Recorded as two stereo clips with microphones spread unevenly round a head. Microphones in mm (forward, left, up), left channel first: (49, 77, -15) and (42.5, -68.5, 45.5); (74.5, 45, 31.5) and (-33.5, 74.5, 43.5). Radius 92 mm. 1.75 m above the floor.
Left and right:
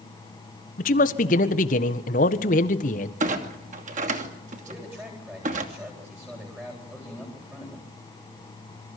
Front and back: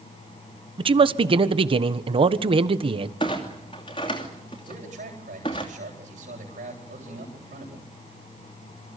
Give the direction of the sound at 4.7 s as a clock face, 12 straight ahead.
6 o'clock.